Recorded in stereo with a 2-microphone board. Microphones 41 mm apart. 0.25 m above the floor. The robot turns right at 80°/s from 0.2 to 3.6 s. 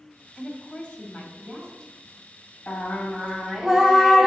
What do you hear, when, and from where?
0.4 s a woman speaking: 30° left, 1.4 m; by 1.9 s 155° left, 1.4 m
2.7 s singing: 120° left, 0.9 m; by 4.3 s 165° right, 0.9 m